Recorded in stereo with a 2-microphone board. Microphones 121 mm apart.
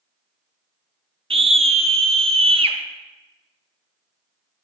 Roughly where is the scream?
Right.